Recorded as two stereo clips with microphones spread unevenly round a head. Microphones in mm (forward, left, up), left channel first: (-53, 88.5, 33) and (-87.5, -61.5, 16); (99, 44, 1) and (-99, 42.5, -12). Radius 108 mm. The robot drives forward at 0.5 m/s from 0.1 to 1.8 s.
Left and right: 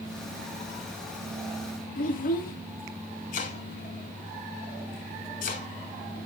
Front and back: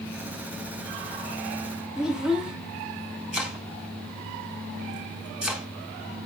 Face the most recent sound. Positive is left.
turn(degrees=95)